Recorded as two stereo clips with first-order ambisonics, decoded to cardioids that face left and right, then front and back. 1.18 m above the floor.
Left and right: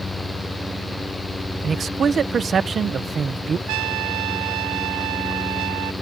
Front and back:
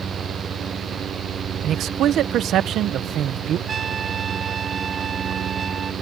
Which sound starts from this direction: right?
A trumpet, at 3.7 s.